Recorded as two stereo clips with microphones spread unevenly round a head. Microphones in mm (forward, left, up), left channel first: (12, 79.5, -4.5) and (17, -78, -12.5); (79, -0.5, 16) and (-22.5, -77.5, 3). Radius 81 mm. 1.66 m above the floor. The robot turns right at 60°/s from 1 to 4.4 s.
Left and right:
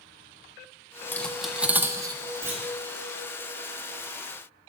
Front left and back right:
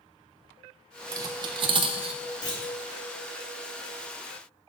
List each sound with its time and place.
1.1 s cutlery clinking: 160° left, 0.8 m; by 2.2 s 135° right, 0.8 m
2.4 s a clunk: 15° right, 3 m; by 2.8 s 5° left, 3 m